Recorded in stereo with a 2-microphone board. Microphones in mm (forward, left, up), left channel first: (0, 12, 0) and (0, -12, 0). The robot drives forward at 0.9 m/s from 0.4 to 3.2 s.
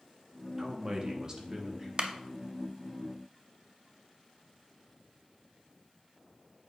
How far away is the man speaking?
About 1.0 m.